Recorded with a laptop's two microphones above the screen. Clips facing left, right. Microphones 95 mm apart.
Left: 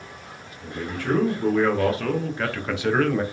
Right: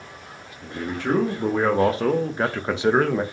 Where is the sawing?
No sawing in this recording.